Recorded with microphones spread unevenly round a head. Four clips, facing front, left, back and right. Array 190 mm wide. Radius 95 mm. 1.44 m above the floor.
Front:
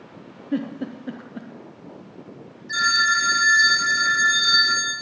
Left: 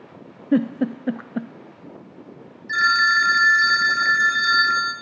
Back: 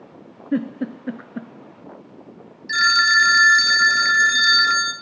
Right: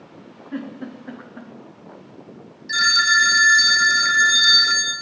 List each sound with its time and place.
0.5 s a giggle: 110° left, 0.6 m
2.7 s a phone ringing: 140° right, 0.7 m